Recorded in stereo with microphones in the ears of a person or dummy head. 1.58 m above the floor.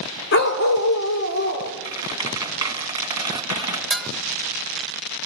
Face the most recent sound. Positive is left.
turn(degrees=0)  # may be behind; listen again after turning